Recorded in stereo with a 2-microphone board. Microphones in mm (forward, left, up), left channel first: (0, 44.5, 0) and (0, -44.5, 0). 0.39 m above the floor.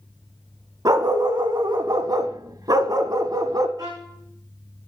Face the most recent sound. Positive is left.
turn(degrees=-50)  # may be behind; listen again after turning